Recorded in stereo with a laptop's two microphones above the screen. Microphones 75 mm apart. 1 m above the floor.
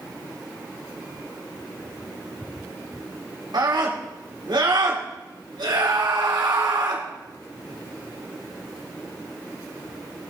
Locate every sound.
3.5 s a scream: 80° right, 3 m